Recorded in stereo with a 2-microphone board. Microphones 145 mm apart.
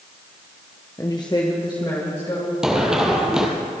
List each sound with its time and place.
1.0 s a woman speaking: 25° left (ahead or behind), 0.9 m; by 2.5 s 35° left (ahead or behind), 3 m
2.6 s running footsteps: 5° right (ahead or behind), 1.8 m